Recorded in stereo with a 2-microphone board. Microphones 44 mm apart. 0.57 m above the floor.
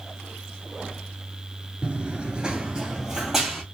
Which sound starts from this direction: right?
Running footsteps, at 1.8 s.